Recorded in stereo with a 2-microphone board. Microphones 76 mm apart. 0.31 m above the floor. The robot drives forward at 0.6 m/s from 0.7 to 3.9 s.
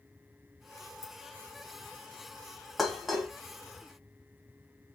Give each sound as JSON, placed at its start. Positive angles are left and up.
{"t": 1.0, "sound": "keys jangling", "side_deg": 55, "distance_m": 1.8}
{"t": 2.8, "sound": "dishes clattering", "side_deg": 0, "distance_m": 1.3}